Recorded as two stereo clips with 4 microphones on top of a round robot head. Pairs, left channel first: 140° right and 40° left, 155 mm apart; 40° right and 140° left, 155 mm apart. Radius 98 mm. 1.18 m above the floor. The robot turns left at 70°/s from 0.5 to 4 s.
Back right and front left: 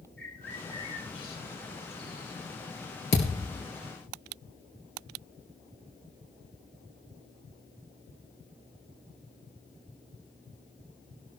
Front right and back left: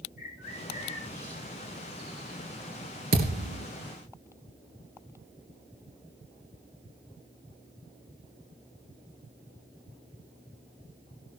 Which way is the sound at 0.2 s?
60° right.